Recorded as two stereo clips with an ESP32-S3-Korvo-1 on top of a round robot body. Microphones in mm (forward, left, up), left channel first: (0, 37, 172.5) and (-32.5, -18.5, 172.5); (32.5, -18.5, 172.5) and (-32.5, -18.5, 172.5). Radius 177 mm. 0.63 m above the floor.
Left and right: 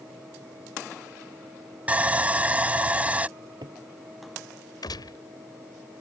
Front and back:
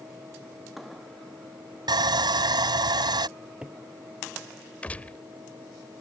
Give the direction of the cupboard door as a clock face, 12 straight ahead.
3 o'clock.